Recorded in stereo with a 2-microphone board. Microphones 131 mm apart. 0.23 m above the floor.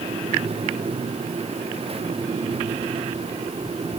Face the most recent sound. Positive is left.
No sound to turn to.